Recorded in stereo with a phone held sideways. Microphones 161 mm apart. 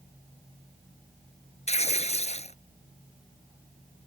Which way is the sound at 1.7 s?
40° left (ahead or behind).